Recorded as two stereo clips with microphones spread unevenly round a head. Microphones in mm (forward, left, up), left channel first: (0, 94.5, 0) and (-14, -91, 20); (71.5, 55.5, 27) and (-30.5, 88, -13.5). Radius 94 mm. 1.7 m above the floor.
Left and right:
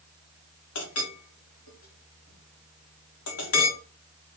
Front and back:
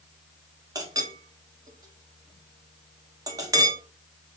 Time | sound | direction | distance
0.8 | a clink | 95° left | 1.5 m